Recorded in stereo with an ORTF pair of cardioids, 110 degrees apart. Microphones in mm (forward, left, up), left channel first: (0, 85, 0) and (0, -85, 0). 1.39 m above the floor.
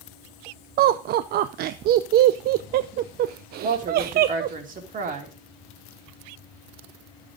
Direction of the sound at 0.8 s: 65° right.